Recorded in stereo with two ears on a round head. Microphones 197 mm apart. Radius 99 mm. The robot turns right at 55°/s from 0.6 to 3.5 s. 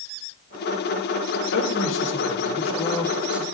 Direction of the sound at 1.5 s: 85° left.